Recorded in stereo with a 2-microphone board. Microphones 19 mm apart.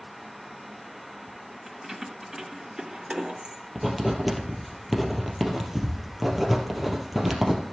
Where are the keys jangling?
10° right (ahead or behind), 1.9 m; by 3.6 s 60° right (ahead or behind), 2.5 m.